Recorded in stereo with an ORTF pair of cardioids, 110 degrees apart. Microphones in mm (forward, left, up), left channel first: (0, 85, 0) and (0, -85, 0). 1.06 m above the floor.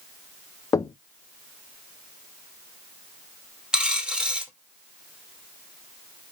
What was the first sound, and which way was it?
Knocking, 20° left.